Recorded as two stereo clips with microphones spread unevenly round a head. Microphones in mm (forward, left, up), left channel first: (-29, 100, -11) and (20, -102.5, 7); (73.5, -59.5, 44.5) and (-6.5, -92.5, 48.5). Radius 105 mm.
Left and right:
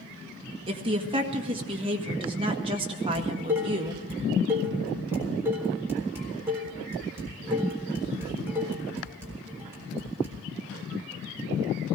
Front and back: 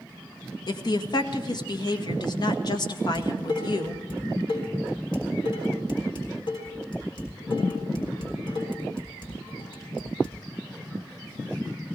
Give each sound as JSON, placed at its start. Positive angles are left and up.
{"t": 0.7, "sound": "a woman speaking", "azimuth_deg": -10, "distance_m": 1.6}
{"t": 3.1, "sound": "dishes clattering", "azimuth_deg": 0, "distance_m": 4.0}